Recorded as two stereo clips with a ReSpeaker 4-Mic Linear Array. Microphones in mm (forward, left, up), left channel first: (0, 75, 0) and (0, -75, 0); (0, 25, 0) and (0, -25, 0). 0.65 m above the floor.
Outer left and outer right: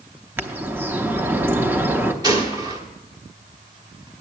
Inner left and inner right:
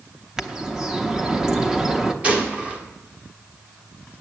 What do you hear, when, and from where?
0.4 s a bird: 15° right (ahead or behind), 0.7 m
2.2 s a gunshot: 25° right (ahead or behind), 1.3 m